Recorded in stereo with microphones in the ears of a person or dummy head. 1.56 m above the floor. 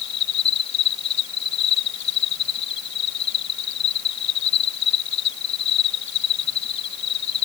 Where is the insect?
75° left (ahead or behind).